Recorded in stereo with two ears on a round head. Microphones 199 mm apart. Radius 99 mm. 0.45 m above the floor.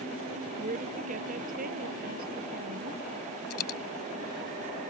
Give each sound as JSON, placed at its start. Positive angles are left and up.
{"t": 0.6, "sound": "a woman speaking", "side_deg": -35}
{"t": 3.5, "sound": "a dropped coin", "side_deg": 75}